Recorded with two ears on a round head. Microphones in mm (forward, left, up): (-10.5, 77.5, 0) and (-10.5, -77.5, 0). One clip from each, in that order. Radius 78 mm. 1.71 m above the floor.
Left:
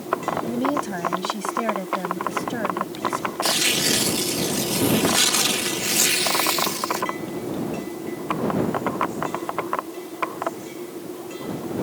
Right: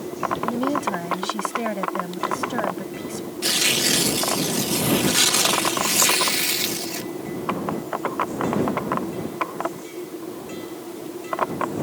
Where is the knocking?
No knocking in this recording.